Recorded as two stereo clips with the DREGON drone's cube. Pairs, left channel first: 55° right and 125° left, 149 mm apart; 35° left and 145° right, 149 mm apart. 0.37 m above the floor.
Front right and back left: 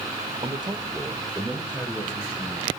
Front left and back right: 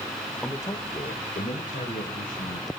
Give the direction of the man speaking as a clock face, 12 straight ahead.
8 o'clock.